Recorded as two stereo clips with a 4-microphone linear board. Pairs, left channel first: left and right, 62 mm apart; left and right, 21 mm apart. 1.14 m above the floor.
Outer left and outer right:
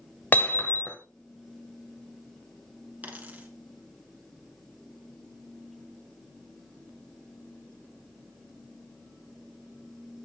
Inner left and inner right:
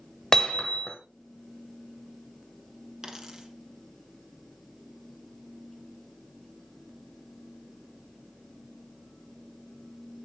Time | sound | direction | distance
0.3 | hammering | 30° left (ahead or behind) | 1.6 m
3.0 | a dropped coin | 25° right (ahead or behind) | 1.8 m